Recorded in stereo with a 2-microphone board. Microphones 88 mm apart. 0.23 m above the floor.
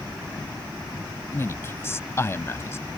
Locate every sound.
1.3 s a man speaking: 30° left (ahead or behind)